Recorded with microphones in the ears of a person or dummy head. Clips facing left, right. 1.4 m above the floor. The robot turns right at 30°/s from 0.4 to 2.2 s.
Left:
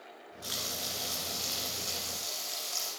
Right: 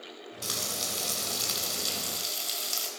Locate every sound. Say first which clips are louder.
0.4 s frying: right 3 dB; 95° right, 4.5 m; by 2.9 s 45° right, 4.5 m